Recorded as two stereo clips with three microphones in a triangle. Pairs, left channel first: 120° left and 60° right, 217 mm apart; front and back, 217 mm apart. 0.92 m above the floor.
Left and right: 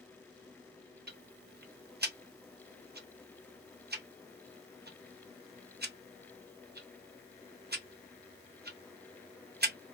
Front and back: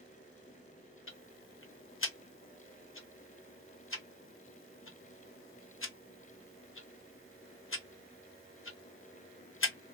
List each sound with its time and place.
1.1 s ticking: 15° right, 0.6 m